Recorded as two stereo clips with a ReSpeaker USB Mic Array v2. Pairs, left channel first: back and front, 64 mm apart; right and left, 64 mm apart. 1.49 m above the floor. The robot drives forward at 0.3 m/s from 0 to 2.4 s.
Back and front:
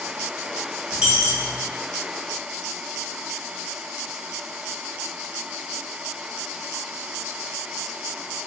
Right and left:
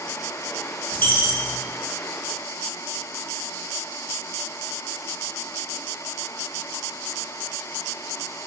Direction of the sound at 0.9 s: 60° right.